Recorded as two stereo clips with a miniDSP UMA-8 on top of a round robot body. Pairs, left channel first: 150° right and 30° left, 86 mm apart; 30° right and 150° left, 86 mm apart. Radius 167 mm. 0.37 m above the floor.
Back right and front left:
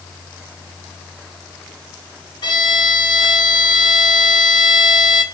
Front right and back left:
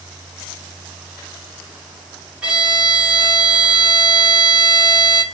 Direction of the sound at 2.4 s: 135° right.